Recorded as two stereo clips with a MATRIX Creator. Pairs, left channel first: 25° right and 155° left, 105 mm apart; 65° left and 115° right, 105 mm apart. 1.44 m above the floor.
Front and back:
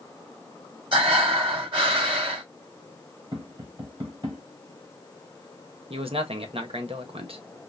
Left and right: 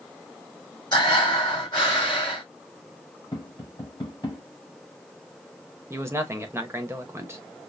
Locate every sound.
0.9 s breathing: 115° left, 3 m
3.3 s tapping: 115° left, 2.5 m
5.9 s a man speaking: 175° right, 1.1 m